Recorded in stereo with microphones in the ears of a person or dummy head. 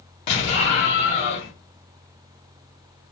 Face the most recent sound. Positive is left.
turn(degrees=35)  # may be behind; listen again after turning